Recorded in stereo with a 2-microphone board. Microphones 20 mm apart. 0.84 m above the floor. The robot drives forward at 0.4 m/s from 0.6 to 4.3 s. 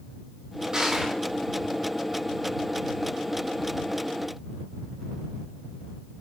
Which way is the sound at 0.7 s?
40° right (ahead or behind).